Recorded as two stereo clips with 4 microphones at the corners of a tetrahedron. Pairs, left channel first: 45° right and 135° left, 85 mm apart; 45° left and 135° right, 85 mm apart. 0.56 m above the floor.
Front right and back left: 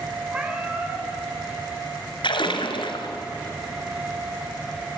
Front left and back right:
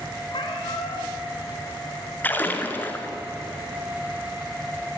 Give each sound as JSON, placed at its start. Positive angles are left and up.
{"t": 0.3, "sound": "a cat meowing", "azimuth_deg": 60, "distance_m": 5.5}
{"t": 2.2, "sound": "a splash", "azimuth_deg": -25, "distance_m": 2.5}